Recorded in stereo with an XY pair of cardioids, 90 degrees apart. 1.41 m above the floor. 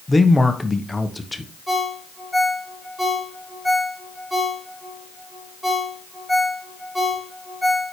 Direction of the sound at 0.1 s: 15° left.